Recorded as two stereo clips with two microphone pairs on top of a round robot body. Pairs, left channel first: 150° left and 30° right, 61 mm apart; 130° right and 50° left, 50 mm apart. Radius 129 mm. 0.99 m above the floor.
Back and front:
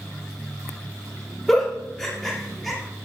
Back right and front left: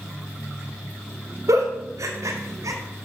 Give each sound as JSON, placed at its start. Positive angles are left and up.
{"t": 1.5, "sound": "a giggle", "azimuth_deg": 65, "distance_m": 2.5}